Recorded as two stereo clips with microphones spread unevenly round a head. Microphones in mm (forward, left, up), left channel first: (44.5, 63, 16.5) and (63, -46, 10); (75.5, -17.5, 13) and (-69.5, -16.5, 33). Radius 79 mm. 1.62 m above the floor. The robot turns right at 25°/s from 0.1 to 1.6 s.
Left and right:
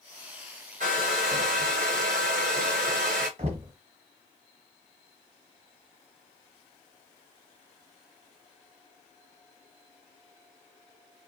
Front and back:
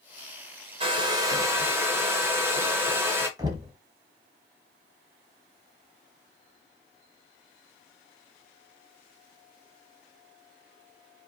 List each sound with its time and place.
0.8 s a hair dryer: 125° right, 1.1 m; by 3.3 s 105° right, 1.1 m
3.4 s knocking: 125° right, 1.3 m